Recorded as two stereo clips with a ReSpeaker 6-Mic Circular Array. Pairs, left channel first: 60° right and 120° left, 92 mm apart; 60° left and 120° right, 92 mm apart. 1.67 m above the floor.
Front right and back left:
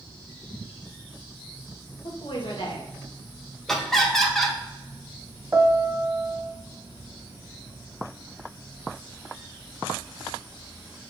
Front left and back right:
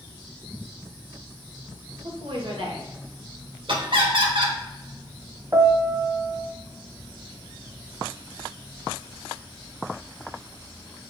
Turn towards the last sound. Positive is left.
turn(degrees=-175)